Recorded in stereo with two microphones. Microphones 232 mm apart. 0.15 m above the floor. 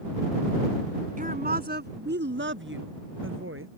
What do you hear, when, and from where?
1.2 s a woman speaking: 35° right (ahead or behind); by 3.7 s 60° right (ahead or behind)